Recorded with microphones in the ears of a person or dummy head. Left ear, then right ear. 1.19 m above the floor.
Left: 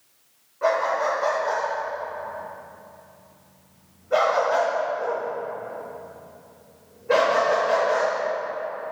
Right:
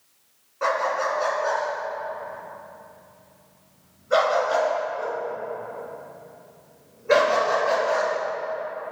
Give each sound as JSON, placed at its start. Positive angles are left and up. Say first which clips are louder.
{"t": 0.6, "sound": "a dog barking", "louder": "left 1 dB", "side_deg": -70, "distance_m": 4.0}